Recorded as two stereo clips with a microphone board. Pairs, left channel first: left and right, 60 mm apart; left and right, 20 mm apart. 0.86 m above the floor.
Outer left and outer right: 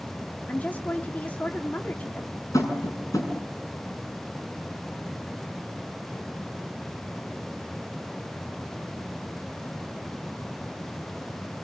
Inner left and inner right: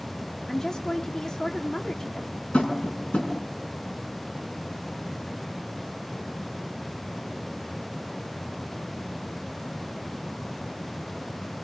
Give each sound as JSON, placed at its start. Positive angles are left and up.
{"t": 0.5, "sound": "a woman speaking", "side_deg": 30, "distance_m": 2.5}
{"t": 2.5, "sound": "tapping", "side_deg": 80, "distance_m": 7.0}